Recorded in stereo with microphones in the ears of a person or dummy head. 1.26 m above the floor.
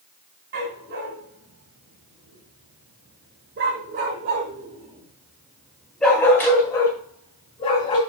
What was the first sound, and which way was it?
A dog barking, 65° right (ahead or behind).